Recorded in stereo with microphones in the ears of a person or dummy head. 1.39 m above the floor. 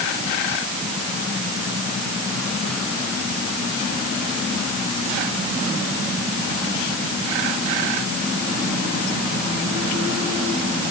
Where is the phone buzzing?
No phone buzzing in this recording.